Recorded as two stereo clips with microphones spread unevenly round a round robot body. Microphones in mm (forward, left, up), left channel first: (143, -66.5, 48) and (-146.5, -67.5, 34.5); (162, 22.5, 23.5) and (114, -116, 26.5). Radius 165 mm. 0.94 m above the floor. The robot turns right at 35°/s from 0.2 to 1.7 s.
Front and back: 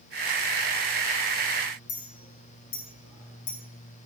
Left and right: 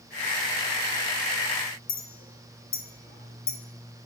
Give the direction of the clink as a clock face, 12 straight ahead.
10 o'clock.